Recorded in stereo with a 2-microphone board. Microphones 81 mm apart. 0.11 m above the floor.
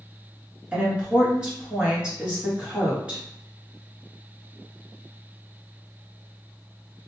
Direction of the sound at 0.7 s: 10° right (ahead or behind).